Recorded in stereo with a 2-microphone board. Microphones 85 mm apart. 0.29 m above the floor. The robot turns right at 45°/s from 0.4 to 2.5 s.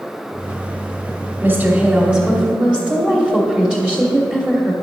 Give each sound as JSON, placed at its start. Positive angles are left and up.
{"t": 1.4, "sound": "a woman speaking", "side_deg": -20, "distance_m": 1.2}